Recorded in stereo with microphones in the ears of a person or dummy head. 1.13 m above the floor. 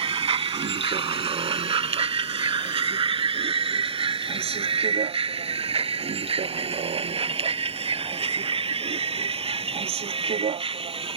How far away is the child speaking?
No child speaking in this recording.